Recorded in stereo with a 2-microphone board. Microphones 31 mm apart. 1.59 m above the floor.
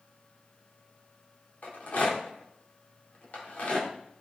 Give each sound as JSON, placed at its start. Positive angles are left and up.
{"t": 1.6, "sound": "a rattle", "side_deg": 55, "distance_m": 2.5}